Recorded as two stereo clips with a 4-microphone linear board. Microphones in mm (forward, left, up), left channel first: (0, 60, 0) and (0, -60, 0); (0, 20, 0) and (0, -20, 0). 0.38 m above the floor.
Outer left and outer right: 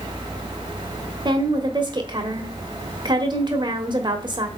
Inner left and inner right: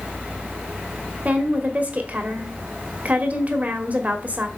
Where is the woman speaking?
35° right (ahead or behind), 1.3 m.